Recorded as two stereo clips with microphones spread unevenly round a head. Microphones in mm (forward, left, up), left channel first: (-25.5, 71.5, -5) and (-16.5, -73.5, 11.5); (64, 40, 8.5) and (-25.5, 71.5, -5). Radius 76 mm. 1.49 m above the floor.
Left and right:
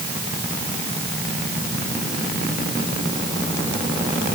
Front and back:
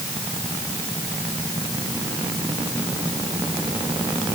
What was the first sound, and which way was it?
Only background noise.